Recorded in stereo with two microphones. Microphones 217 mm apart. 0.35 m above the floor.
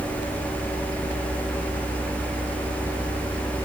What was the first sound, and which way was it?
Only background noise.